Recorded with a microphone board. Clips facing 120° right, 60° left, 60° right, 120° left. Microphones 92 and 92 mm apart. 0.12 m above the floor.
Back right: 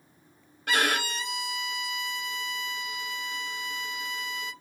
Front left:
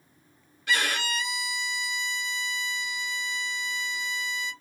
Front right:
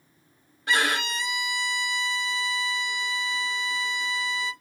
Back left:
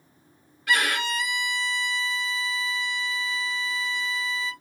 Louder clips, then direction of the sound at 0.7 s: Back right 1 dB, even; 110° right.